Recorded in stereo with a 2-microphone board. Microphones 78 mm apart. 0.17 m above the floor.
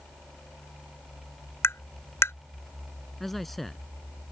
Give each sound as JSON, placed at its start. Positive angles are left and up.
{"t": 1.6, "sound": "tapping", "side_deg": 35}
{"t": 3.2, "sound": "a man speaking", "side_deg": 0}